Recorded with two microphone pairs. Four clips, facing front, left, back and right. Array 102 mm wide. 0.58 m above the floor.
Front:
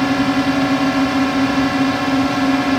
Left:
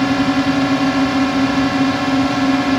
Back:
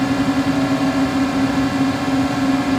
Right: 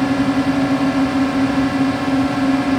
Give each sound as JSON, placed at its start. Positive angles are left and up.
{"t": 0.0, "sound": "a drone", "azimuth_deg": 45}